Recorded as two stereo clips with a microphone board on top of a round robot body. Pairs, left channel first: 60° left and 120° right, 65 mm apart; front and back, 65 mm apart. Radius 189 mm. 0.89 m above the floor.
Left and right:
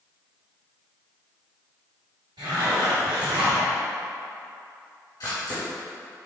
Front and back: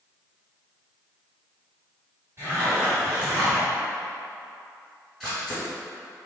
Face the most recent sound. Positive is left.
turn(degrees=90)